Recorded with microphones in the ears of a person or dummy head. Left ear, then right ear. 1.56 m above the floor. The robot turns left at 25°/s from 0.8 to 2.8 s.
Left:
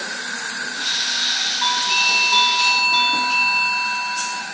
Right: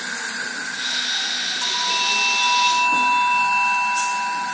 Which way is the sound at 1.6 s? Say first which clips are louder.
Left 3 dB; 80° left.